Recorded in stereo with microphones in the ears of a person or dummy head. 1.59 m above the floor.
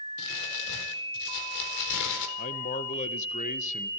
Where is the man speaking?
40° left (ahead or behind), 1.5 m.